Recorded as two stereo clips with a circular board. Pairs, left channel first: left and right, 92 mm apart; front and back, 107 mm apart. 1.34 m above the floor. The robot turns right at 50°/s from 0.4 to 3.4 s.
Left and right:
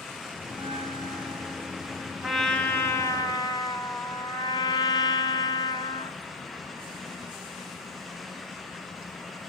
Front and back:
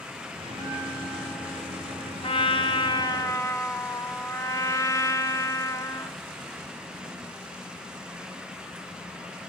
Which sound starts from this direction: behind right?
A bell, at 0.5 s.